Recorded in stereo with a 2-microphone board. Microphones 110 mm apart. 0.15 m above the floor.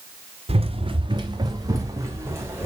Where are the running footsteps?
60° right (ahead or behind), 1.9 m; by 2.6 s 20° right (ahead or behind), 3.5 m.